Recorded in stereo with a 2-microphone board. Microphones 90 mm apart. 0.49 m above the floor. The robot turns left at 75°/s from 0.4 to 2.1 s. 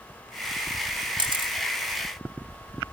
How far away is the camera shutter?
About 2.5 m.